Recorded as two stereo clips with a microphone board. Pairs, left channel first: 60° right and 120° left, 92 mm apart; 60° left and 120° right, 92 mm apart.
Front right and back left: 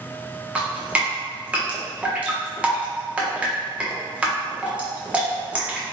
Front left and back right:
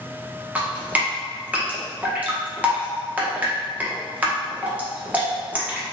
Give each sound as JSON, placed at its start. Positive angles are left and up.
{"t": 0.6, "sound": "dripping", "azimuth_deg": 180, "distance_m": 0.7}